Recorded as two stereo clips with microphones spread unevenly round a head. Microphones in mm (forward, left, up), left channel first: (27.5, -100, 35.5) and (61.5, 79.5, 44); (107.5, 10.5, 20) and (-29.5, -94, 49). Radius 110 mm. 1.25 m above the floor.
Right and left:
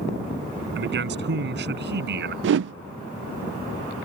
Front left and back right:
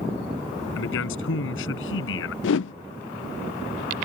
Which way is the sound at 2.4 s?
60° left.